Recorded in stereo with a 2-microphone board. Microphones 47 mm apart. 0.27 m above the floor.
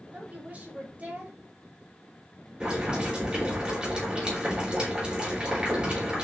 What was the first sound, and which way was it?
A woman speaking, 30° right (ahead or behind).